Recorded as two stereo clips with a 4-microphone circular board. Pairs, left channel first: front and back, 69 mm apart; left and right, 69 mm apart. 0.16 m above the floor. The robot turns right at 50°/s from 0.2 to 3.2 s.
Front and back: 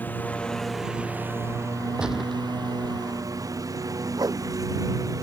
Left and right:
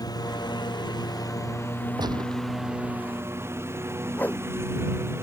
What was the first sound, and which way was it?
A lawn mower, 65° left.